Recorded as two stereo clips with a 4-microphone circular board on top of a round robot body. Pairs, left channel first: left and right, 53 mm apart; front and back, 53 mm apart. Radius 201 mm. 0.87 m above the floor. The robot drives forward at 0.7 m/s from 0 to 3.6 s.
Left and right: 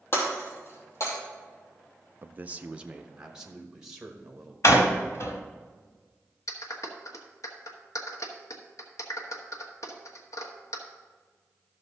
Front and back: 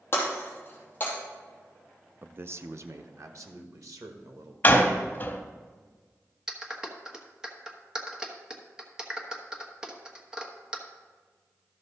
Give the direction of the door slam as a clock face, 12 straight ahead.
10 o'clock.